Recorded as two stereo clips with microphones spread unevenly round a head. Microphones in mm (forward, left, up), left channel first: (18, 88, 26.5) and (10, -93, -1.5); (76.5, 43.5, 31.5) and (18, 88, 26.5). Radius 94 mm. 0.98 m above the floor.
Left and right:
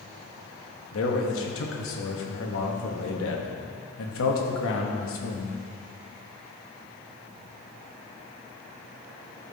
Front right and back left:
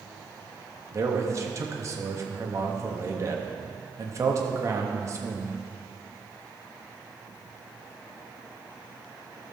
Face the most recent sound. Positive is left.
turn(degrees=100)